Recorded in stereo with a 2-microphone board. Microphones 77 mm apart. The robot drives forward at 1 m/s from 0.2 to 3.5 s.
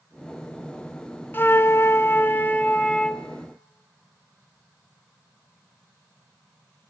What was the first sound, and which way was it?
A flute, 30° left (ahead or behind).